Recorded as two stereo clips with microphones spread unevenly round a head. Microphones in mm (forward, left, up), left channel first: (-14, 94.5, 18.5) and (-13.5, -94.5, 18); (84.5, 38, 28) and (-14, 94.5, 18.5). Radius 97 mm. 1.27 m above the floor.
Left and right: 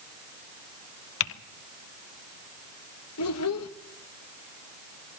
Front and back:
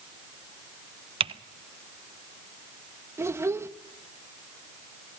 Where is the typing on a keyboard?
110° left, 0.7 m.